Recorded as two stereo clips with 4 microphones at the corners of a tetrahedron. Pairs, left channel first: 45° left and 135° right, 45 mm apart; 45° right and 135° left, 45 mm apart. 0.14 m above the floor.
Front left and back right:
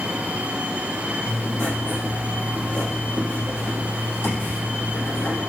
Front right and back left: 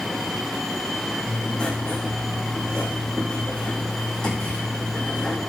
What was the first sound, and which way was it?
Writing, 30° left.